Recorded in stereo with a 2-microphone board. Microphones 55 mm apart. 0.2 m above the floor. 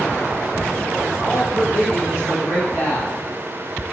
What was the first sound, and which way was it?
A man speaking, 45° left (ahead or behind).